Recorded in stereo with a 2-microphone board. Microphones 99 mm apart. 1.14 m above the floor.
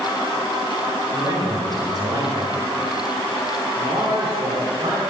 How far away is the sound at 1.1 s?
About 5 m.